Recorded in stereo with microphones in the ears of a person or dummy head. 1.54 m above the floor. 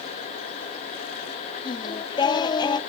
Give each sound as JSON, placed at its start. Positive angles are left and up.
{"t": 1.6, "sound": "singing", "side_deg": 20, "distance_m": 0.7}